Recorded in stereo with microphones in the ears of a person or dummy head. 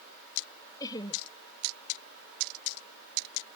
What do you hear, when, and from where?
0.8 s laughter: 25° left (ahead or behind)